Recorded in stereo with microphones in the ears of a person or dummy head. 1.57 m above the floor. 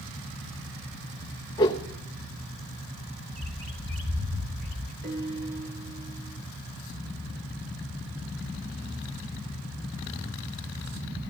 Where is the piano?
50° right (ahead or behind), 5 m.